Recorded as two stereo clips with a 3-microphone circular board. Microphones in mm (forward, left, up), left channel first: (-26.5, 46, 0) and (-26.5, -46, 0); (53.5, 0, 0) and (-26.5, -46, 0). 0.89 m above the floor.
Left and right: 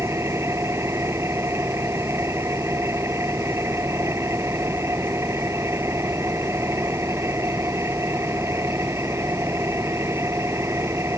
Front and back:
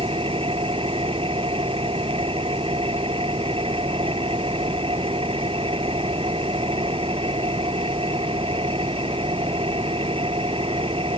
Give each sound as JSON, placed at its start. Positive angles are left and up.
{"t": 0.0, "sound": "an engine running", "azimuth_deg": -150}